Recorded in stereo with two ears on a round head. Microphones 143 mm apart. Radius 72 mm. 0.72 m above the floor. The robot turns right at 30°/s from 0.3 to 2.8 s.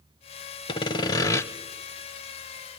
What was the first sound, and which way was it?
Sawing, 30° left (ahead or behind).